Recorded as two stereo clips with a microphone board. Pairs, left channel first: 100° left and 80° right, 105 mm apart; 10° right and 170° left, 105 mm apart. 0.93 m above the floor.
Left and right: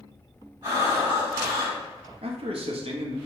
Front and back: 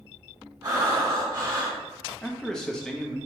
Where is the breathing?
135° right, 1.5 m.